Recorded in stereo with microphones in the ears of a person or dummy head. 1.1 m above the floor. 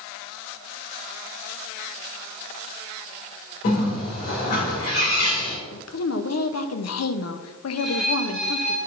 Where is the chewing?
I don't hear chewing.